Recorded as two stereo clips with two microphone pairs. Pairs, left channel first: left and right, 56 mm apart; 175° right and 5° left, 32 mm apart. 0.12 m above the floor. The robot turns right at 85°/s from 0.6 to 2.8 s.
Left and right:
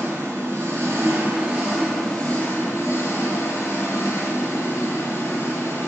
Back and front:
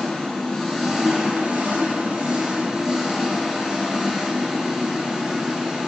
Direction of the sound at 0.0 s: 110° right.